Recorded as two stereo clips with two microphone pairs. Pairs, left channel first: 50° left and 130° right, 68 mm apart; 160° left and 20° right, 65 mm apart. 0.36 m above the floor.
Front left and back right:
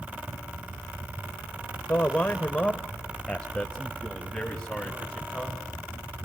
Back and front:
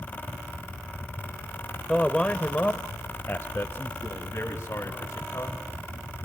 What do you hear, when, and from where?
1.9 s a man speaking: 80° left, 0.9 m; by 5.6 s 135° left, 2.5 m